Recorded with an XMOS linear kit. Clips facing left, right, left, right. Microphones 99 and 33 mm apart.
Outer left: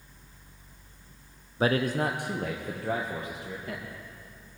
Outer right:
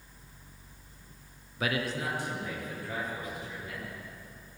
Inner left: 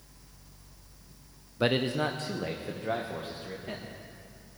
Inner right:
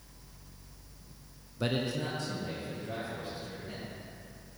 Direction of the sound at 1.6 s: 30° left (ahead or behind).